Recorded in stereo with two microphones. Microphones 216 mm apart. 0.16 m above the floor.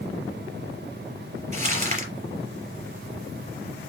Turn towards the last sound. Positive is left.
turn(degrees=-35)  # may be behind; listen again after turning